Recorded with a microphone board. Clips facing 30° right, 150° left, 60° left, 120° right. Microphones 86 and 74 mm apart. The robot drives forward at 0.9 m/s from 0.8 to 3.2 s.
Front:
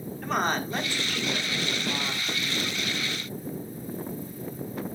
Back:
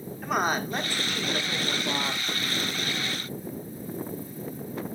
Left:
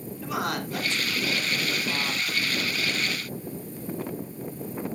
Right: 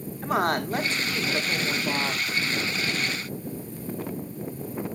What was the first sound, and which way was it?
A woman speaking, 130° right.